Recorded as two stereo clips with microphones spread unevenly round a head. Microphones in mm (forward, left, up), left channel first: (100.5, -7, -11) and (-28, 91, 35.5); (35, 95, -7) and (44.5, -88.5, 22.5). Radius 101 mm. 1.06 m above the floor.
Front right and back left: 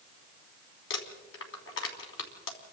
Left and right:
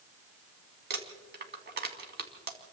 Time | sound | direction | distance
0.9 | crumpling | 60° right | 3.5 m